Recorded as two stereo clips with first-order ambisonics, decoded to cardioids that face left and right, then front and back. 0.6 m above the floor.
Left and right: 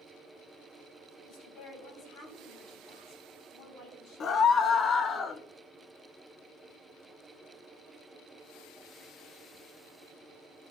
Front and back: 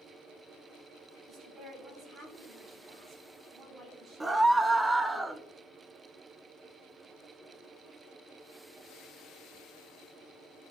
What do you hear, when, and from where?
1.2 s a woman speaking: 115° left, 3.5 m
4.2 s a scream: 105° left, 0.6 m